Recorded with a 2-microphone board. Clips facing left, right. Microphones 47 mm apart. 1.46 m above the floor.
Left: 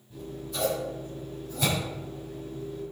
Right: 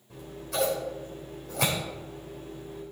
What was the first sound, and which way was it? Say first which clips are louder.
Scissors: right 2 dB; 70° right (ahead or behind).